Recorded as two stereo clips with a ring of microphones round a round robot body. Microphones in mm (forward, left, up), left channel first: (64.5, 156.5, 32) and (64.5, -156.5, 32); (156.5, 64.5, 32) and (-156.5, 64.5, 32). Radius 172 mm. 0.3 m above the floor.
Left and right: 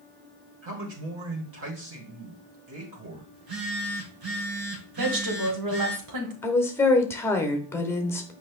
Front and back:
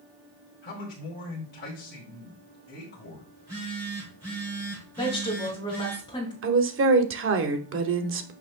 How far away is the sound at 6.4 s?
About 1.1 m.